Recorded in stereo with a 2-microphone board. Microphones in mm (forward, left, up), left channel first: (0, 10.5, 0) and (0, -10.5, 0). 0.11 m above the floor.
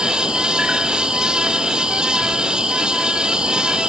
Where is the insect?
55° right (ahead or behind), 1.7 m.